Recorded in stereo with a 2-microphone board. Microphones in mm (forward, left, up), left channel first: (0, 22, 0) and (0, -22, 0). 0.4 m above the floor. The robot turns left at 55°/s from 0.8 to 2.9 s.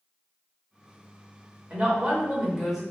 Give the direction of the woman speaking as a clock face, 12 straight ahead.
4 o'clock.